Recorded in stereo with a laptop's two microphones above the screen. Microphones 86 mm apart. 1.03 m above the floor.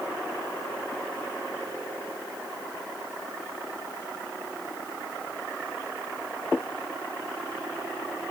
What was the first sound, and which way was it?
Only background noise.